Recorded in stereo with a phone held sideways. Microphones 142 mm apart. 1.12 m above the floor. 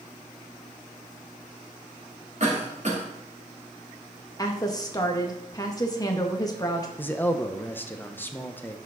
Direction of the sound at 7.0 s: 15° left (ahead or behind).